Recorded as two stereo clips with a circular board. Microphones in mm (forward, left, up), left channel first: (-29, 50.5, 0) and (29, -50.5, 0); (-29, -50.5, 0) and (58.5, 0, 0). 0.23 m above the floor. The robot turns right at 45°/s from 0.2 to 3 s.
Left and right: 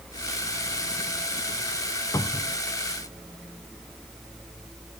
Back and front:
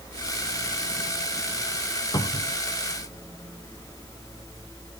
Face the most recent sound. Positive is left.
turn(degrees=-145)